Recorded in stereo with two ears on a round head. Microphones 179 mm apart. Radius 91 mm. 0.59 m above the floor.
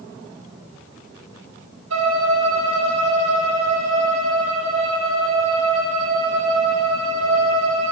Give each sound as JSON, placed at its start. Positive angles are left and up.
{"t": 1.9, "sound": "a violin", "side_deg": -70, "distance_m": 4.0}